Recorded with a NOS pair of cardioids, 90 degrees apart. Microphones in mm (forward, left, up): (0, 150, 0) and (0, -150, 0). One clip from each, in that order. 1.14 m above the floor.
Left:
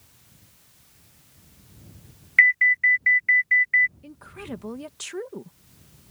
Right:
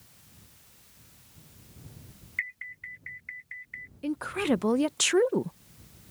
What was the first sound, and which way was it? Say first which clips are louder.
An alarm: left 20 dB; 65° left.